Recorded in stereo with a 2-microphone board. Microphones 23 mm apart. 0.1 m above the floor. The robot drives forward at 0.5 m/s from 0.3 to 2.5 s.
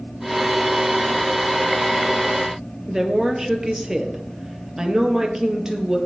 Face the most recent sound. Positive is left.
turn(degrees=-10)  # may be behind; listen again after turning